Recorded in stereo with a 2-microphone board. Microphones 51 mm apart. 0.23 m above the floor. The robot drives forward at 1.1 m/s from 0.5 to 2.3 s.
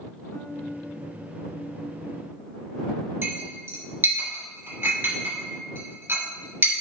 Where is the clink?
45° right (ahead or behind), 3 m.